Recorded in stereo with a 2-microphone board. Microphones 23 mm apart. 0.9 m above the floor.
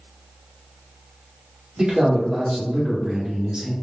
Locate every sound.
1.8 s a man speaking: 40° right (ahead or behind), 1.1 m